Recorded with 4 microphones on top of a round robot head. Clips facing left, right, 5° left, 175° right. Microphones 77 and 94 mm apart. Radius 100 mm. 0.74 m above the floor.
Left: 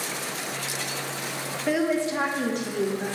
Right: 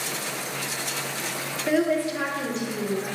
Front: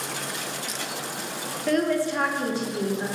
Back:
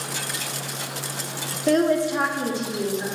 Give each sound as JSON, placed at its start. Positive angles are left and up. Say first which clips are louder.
{"t": 1.7, "sound": "a woman speaking", "louder": "right 1 dB, back 4 dB", "azimuth_deg": -175, "distance_m": 0.6}